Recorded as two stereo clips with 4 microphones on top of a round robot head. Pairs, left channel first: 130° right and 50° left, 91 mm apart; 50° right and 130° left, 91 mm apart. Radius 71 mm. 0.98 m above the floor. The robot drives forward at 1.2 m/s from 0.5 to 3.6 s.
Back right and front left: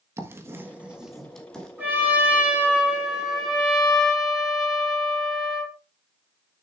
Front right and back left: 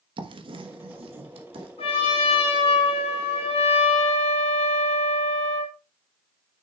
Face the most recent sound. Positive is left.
turn(degrees=-45)